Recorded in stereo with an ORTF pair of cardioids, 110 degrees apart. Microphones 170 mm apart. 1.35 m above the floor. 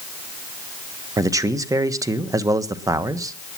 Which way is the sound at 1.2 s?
20° right.